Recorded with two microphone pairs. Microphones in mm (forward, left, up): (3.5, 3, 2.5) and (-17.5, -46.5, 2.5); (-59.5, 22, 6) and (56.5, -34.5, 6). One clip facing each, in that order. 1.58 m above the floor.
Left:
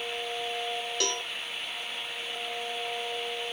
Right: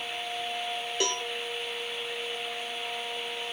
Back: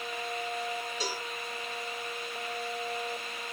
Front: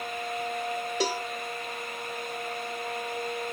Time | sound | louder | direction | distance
1.0 | a cowbell | right 3 dB, front 7 dB | 45° right | 0.7 m